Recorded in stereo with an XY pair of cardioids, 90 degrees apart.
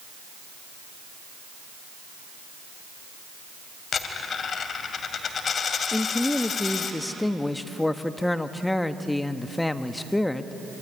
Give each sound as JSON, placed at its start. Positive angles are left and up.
{"t": 3.9, "sound": "a dropped coin", "azimuth_deg": 55, "distance_m": 2.5}
{"t": 5.9, "sound": "a man speaking", "azimuth_deg": 15, "distance_m": 1.4}